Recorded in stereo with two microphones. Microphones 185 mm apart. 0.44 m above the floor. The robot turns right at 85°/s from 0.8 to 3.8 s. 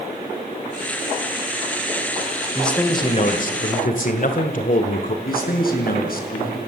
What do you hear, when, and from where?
2.5 s a man speaking: 5° right, 1.8 m; by 5.2 s 105° left, 1.8 m
5.2 s a man speaking: 60° left (ahead or behind), 6 m